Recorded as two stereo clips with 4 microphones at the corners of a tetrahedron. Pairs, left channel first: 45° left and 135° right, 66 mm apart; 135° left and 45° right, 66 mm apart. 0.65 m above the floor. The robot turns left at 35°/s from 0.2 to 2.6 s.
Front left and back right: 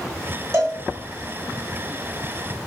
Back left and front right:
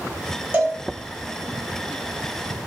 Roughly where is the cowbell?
Right.